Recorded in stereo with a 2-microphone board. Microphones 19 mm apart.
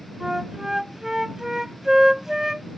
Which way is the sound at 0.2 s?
25° right (ahead or behind).